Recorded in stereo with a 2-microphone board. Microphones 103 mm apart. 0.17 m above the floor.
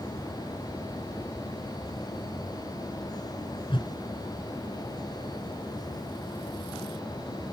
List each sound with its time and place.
3.7 s a whoosh: 55° left (ahead or behind)